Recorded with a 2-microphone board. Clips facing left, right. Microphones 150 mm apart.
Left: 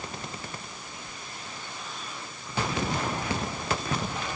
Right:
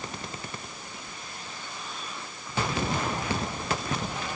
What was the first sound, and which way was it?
Only background noise.